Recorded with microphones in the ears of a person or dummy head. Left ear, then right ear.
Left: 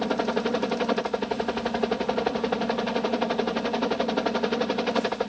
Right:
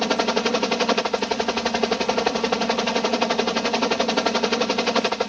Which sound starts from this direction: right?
A helicopter, at 0.0 s.